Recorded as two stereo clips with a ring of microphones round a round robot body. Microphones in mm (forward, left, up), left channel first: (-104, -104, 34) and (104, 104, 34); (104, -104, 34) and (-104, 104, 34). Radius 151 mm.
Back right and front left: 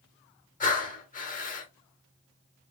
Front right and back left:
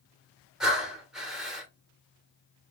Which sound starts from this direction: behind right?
Breathing, at 0.6 s.